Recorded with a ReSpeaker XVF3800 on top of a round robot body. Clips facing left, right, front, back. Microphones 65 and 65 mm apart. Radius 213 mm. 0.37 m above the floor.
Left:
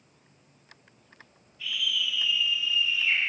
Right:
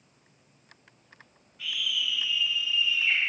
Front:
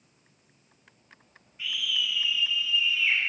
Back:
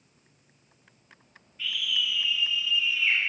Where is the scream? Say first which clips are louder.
Left 1 dB, back 1 dB; 75° right, 3 m; by 3.2 s 100° right, 3 m.